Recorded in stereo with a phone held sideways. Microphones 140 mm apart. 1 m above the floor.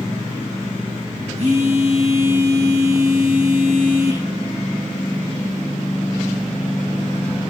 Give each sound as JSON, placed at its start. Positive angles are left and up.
{"t": 1.4, "sound": "a phone buzzing", "side_deg": -60, "distance_m": 9.5}